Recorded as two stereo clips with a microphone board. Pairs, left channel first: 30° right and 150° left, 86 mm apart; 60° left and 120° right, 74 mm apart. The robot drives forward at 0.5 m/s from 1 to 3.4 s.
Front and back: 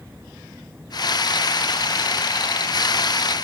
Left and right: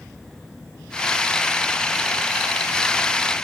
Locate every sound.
Only background noise.